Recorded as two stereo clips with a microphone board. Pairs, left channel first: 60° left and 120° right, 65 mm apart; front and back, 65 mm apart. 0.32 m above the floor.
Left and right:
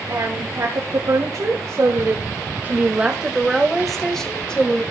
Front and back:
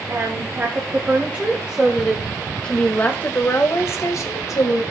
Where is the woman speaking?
135° right, 1.8 m; by 4.8 s 10° right, 1.7 m.